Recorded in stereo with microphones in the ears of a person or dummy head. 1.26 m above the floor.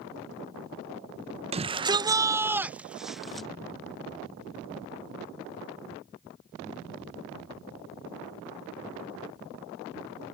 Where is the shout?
30° right (ahead or behind); by 3.5 s centre (ahead or behind).